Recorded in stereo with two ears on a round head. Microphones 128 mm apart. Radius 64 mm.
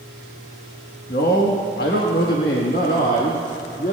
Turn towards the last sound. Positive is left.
turn(degrees=55)  # may be behind; listen again after turning